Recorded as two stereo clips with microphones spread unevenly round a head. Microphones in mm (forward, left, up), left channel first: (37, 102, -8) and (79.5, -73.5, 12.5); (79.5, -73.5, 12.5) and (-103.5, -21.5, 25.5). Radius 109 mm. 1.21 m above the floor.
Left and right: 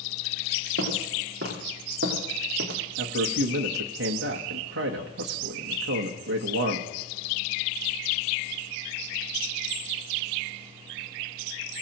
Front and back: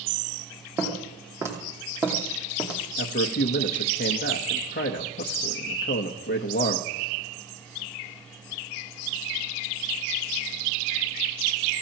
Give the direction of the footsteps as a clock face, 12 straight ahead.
4 o'clock.